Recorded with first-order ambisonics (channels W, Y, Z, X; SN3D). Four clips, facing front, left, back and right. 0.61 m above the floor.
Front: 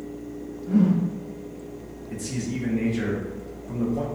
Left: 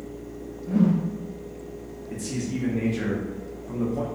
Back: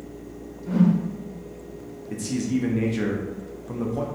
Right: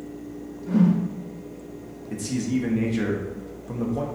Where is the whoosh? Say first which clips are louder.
Right 1 dB, even; 140° right, 0.7 m.